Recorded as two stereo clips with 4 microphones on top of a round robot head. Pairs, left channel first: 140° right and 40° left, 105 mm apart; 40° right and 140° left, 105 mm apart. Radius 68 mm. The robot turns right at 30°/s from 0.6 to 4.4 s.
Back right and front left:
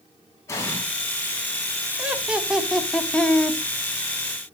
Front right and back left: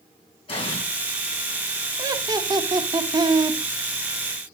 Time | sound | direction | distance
0.5 | an explosion | 75° right | 2 m
2.0 | laughter | 105° left | 1.1 m